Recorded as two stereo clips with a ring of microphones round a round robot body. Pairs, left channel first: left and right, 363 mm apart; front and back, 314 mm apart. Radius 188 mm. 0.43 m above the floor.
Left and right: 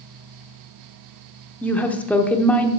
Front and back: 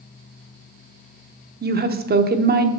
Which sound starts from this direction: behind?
A woman speaking, at 1.6 s.